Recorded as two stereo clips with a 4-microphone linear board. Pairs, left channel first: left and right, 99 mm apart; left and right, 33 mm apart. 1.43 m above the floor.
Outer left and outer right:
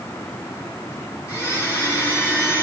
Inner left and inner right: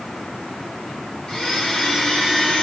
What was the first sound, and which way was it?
A blender, 35° left (ahead or behind).